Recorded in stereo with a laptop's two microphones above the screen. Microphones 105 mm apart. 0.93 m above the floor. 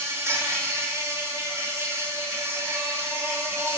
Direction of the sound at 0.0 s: 30° right (ahead or behind).